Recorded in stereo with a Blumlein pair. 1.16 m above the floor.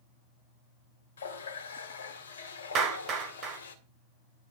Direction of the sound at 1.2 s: 65° left.